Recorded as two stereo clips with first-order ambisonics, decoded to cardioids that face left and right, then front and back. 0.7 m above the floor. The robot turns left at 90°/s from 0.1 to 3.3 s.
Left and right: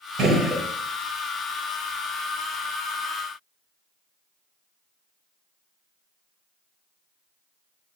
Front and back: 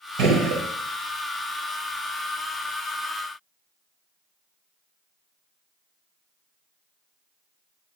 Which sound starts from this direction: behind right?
A gunshot, at 0.2 s.